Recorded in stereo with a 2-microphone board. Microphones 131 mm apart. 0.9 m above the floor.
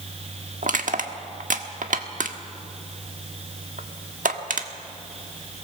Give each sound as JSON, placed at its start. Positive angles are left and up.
{"t": 0.6, "sound": "crushing", "side_deg": -85, "distance_m": 1.2}